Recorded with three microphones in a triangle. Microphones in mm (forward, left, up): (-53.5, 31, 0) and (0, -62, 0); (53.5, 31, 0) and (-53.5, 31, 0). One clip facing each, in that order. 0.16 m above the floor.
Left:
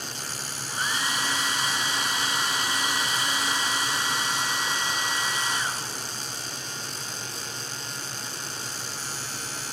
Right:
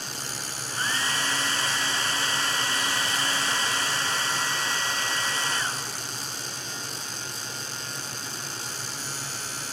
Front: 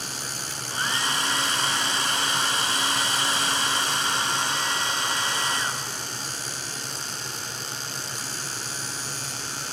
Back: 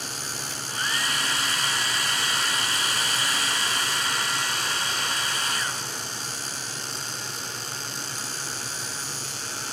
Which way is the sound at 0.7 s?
50° left.